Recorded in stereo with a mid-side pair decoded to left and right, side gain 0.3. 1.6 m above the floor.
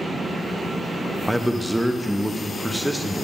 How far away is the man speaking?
About 0.8 m.